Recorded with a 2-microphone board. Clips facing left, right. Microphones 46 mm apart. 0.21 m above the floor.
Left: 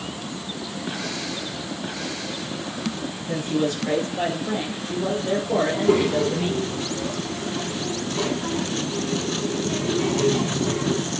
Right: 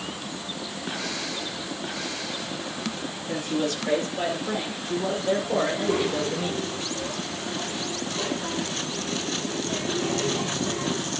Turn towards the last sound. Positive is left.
turn(degrees=75)  # may be behind; listen again after turning